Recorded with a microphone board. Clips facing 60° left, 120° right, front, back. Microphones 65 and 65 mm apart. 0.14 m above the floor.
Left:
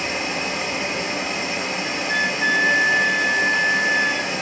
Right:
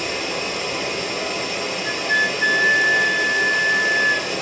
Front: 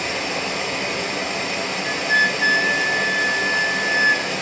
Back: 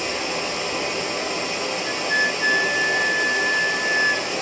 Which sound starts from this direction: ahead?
Running water, at 0.0 s.